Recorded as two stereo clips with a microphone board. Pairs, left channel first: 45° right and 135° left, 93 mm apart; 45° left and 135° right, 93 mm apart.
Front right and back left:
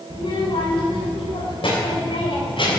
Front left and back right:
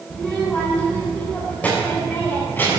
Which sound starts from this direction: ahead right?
A child speaking, at 0.1 s.